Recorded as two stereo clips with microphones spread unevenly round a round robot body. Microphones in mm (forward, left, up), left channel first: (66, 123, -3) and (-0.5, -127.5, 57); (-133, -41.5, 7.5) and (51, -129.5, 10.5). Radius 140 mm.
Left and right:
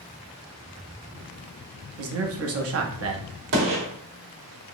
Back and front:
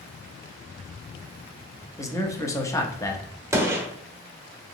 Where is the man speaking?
135° right, 0.7 m.